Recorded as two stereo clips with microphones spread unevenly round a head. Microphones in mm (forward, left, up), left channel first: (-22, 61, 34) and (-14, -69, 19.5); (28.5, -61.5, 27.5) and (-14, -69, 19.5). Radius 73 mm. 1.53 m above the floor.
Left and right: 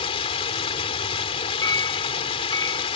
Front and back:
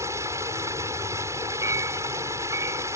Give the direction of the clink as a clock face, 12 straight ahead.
7 o'clock.